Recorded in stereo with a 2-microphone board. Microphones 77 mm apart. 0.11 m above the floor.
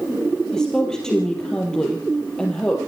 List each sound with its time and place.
0.5 s a woman speaking: 10° left (ahead or behind), 3.5 m